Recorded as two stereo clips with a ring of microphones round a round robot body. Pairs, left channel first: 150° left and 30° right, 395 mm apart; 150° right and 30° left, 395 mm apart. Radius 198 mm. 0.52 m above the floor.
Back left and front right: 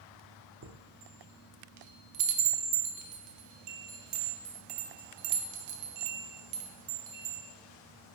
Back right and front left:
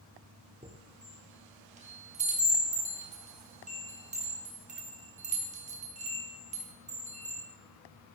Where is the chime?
35° right, 0.7 m.